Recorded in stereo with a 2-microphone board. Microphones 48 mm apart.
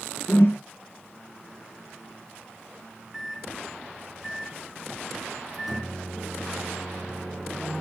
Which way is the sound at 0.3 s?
55° left (ahead or behind).